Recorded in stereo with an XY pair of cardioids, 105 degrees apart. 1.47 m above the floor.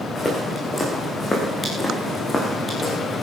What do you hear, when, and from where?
0.1 s footsteps: 25° left, 5 m